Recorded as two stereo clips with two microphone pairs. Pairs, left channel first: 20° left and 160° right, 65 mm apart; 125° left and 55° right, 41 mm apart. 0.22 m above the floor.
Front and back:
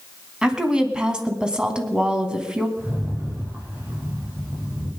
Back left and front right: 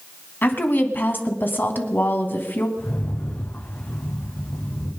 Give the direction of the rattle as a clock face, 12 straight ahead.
7 o'clock.